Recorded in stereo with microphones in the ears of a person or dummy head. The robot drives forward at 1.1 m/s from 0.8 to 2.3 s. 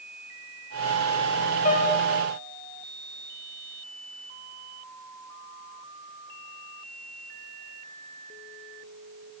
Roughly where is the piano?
Left.